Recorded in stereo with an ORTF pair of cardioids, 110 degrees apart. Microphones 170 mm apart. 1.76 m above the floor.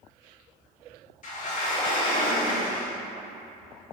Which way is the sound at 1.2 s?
50° left.